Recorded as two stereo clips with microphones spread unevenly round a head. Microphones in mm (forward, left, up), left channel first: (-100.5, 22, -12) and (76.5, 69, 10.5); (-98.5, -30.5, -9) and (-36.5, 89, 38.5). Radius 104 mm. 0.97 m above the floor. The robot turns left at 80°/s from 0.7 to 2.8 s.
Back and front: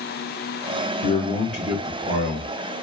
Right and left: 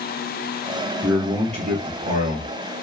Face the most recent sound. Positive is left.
turn(degrees=10)